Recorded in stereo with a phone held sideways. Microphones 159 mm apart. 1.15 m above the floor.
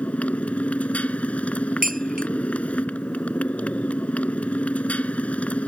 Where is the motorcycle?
10° left (ahead or behind).